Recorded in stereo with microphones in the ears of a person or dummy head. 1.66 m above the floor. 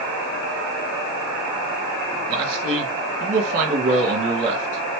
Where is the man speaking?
40° right (ahead or behind), 2 m.